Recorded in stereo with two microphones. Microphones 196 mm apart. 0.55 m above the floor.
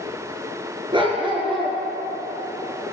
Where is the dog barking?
25° right (ahead or behind), 2.5 m.